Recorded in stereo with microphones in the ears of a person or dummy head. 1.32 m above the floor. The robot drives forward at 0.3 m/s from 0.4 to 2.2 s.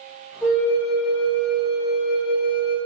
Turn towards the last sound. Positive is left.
turn(degrees=0)  # may be behind; listen again after turning